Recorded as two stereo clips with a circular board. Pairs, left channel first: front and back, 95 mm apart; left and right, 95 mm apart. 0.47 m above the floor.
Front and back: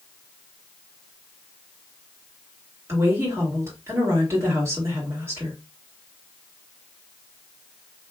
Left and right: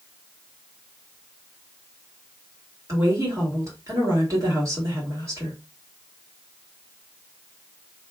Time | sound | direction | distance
2.9 | a woman speaking | 130° right | 1.7 m